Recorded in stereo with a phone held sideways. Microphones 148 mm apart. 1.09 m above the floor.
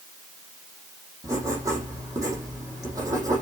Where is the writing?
20° right (ahead or behind), 8 m.